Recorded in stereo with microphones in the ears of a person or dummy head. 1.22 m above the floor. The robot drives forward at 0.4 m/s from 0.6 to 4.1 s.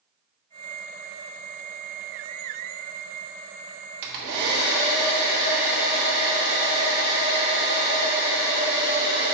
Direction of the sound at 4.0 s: 60° right (ahead or behind).